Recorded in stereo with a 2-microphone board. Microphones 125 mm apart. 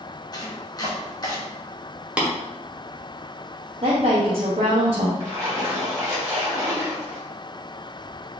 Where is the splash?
25° right (ahead or behind), 1.8 m.